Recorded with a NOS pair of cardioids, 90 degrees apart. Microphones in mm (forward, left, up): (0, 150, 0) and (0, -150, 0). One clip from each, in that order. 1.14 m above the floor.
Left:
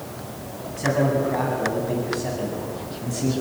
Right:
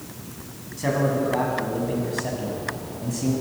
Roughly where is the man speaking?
Ahead.